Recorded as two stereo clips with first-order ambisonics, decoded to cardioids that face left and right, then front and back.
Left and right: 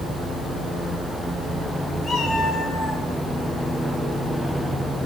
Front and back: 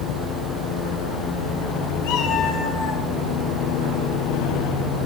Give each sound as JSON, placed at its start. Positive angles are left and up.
{"t": 2.0, "sound": "a cat meowing", "azimuth_deg": 5, "distance_m": 5.0}